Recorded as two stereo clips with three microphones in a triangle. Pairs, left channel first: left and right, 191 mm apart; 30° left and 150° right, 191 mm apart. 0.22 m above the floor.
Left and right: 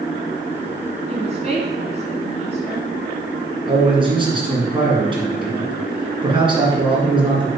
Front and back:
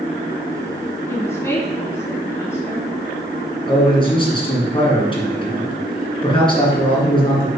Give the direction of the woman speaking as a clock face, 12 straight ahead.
1 o'clock.